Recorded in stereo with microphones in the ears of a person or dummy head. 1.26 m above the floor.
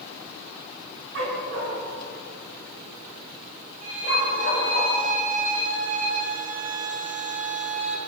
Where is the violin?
35° right (ahead or behind), 1.8 m.